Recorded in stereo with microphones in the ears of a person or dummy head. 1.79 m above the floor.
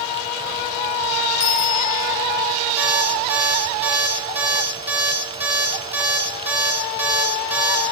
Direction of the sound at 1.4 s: 65° left (ahead or behind).